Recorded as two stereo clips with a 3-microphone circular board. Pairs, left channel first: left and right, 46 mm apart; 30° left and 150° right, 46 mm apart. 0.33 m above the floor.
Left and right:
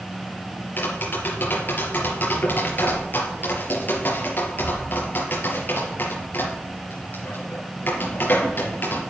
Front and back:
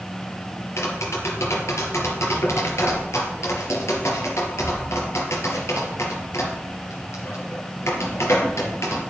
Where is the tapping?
40° left, 3.5 m.